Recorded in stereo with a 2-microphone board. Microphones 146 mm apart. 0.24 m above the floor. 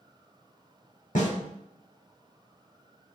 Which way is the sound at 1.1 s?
75° left (ahead or behind).